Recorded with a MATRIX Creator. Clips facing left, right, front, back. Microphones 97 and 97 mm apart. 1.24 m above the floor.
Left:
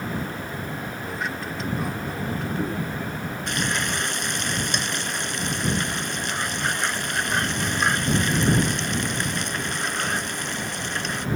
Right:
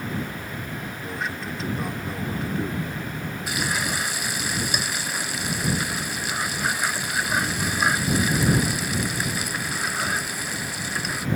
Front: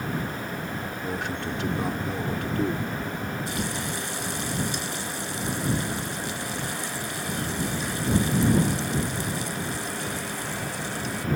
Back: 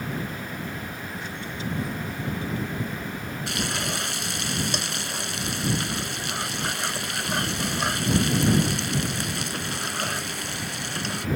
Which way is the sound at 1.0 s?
Straight ahead.